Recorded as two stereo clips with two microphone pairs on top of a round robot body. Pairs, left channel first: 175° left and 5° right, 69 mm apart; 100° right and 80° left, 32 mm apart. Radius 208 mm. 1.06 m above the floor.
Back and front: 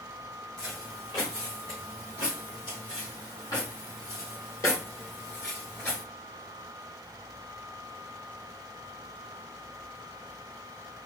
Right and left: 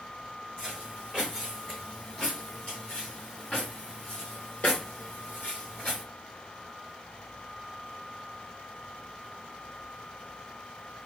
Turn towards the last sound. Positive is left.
turn(degrees=-130)